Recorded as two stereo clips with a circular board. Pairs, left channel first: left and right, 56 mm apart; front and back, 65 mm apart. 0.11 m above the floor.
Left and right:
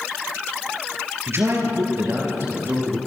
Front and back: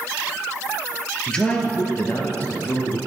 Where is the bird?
I don't hear a bird.